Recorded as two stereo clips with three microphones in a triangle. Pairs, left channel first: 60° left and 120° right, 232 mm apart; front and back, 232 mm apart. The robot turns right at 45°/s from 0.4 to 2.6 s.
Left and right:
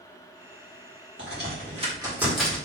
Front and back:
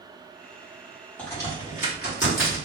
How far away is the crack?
About 2.0 m.